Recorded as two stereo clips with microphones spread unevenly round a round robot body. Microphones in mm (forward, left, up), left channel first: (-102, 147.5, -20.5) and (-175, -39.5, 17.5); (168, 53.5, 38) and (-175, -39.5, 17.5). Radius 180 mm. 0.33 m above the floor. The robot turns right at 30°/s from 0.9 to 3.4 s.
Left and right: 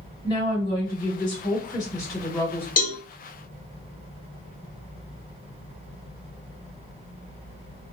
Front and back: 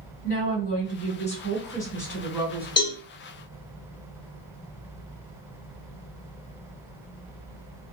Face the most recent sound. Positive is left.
turn(degrees=110)